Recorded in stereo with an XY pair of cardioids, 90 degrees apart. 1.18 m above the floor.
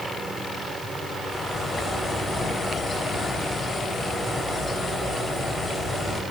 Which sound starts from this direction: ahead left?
A bird, at 1.3 s.